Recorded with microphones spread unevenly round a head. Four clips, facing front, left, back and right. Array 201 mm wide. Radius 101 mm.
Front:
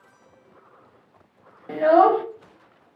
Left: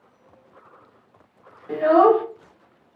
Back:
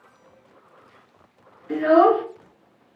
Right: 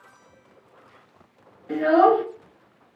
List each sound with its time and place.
1.7 s a child speaking: 10° left, 1.1 m